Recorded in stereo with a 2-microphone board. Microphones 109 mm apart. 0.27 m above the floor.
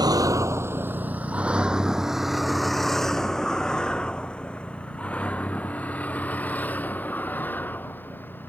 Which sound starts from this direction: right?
A vehicle, at 0.0 s.